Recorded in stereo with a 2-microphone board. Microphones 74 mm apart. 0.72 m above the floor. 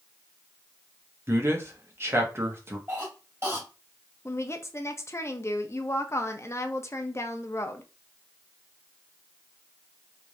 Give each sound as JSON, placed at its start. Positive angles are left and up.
{"t": 1.3, "sound": "a man speaking", "side_deg": -35, "distance_m": 1.0}
{"t": 2.9, "sound": "a cough", "side_deg": -30, "distance_m": 2.0}
{"t": 4.2, "sound": "a woman speaking", "side_deg": 35, "distance_m": 0.5}